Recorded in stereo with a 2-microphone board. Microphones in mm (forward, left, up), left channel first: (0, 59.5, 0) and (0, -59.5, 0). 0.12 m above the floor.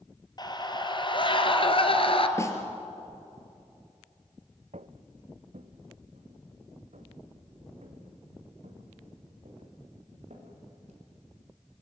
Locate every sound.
0.4 s a scream: 35° left (ahead or behind), 2.5 m; by 2.3 s 50° left (ahead or behind), 2 m
2.4 s a snare drum: 25° left (ahead or behind), 3 m
4.7 s footsteps: 75° right (ahead or behind), 0.7 m; by 11.0 s 70° right (ahead or behind), 7 m